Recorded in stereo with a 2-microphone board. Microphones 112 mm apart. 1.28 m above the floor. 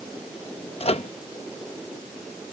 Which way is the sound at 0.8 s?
65° left (ahead or behind).